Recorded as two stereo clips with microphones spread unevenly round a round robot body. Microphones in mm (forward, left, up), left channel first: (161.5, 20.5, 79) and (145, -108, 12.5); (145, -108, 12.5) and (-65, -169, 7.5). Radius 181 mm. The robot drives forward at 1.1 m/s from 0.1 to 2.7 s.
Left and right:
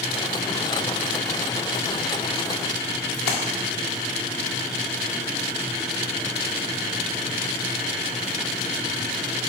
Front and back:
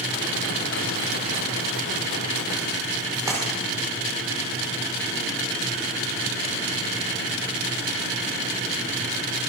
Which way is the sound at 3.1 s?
115° left.